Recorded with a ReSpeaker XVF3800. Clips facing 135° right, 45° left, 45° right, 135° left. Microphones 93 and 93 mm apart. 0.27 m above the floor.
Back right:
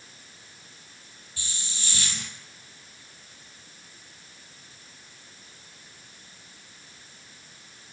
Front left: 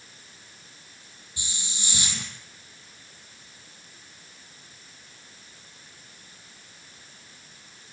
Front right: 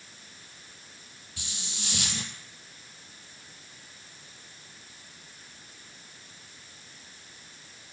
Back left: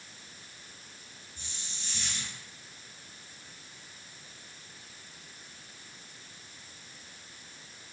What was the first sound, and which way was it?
A hiss, 25° right.